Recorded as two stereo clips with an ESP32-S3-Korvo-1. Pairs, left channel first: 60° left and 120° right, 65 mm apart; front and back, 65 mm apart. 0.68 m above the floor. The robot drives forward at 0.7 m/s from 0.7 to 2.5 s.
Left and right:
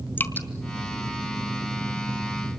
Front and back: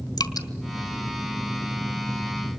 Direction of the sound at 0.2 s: 5° left.